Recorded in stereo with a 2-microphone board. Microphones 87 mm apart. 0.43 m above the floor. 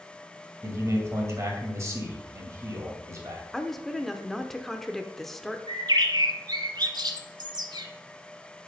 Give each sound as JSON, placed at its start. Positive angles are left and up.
{"t": 0.6, "sound": "a man speaking", "side_deg": -35, "distance_m": 2.5}
{"t": 3.5, "sound": "a woman speaking", "side_deg": 5, "distance_m": 0.7}
{"t": 5.7, "sound": "a bird", "side_deg": -55, "distance_m": 0.8}